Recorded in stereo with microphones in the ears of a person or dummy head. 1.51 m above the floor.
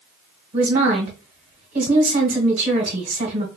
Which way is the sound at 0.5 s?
40° right (ahead or behind).